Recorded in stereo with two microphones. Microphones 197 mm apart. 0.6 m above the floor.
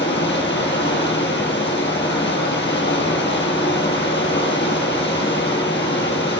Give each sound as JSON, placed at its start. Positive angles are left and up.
{"t": 0.0, "sound": "running water", "side_deg": 70, "distance_m": 1.9}